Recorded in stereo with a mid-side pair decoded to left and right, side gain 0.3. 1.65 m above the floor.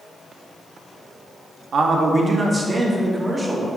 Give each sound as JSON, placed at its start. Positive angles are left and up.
{"t": 1.7, "sound": "a man speaking", "azimuth_deg": -70, "distance_m": 0.9}